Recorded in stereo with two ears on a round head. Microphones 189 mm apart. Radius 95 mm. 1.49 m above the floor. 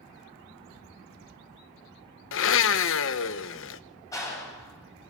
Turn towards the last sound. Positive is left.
turn(degrees=15)  # may be behind; listen again after turning